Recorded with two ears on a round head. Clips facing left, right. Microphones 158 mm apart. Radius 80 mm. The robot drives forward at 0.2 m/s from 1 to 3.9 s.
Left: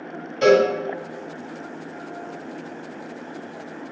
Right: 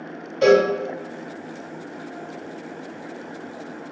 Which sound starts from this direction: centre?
A cowbell, at 0.4 s.